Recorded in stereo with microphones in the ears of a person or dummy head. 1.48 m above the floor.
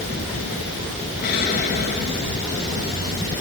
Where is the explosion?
55° left (ahead or behind), 8 m.